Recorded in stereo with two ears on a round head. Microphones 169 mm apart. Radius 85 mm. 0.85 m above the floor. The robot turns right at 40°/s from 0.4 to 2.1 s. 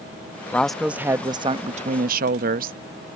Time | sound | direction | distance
0.5 | a woman speaking | 170° left | ?